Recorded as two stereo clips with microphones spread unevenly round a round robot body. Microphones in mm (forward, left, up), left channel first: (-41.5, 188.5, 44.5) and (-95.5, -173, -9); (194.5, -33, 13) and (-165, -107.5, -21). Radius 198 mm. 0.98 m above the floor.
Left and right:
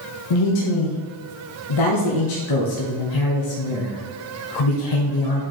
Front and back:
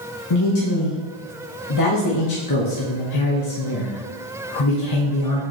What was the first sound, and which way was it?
A man speaking, 50° left.